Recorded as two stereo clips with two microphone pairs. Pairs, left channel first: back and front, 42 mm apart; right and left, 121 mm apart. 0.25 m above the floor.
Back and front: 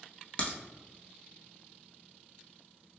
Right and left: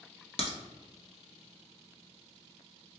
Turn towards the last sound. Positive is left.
turn(degrees=-125)